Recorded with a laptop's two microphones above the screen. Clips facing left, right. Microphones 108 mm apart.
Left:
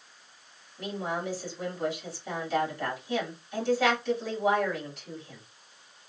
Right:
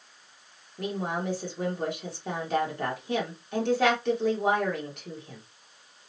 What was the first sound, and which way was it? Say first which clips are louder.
A woman speaking: right 2 dB; 60° right (ahead or behind).